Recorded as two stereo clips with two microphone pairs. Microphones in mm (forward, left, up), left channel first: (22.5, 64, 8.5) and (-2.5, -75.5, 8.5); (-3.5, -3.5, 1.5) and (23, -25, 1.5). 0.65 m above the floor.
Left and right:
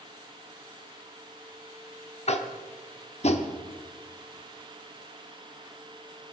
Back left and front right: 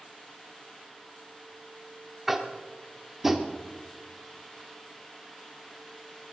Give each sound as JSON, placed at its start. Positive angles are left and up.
{"t": 2.3, "sound": "tapping", "azimuth_deg": 45, "distance_m": 1.1}